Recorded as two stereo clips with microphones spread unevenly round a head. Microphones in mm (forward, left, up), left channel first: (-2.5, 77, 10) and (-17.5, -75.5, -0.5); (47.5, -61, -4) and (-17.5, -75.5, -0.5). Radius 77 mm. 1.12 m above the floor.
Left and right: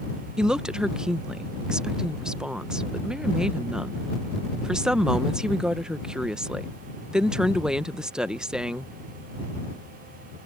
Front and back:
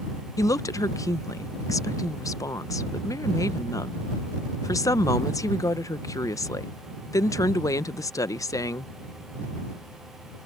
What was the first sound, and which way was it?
A woman speaking, 10° right.